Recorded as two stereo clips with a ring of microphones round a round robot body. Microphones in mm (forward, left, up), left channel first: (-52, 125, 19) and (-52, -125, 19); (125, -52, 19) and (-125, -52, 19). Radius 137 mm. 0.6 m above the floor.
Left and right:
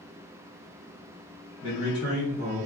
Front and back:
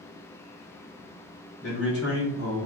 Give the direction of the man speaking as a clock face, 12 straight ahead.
12 o'clock.